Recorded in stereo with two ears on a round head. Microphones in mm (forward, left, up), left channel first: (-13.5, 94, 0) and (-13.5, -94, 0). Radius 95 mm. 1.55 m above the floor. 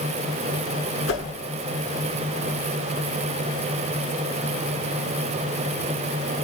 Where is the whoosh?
65° left (ahead or behind), 10 m.